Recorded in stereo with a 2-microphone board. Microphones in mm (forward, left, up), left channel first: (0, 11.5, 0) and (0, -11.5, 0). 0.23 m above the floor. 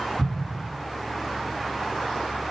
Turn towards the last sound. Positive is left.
turn(degrees=10)  # may be behind; listen again after turning